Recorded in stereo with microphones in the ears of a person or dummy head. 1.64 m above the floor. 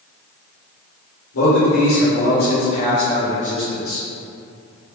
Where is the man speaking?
75° left (ahead or behind), 1.2 m; by 4.0 s 10° right (ahead or behind), 1.1 m.